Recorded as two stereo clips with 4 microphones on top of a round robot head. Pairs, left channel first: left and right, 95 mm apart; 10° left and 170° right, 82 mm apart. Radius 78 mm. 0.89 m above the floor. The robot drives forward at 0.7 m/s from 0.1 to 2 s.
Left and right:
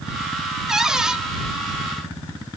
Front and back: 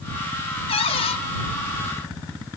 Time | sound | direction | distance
0.7 | a cupboard door | 5° right | 1.7 m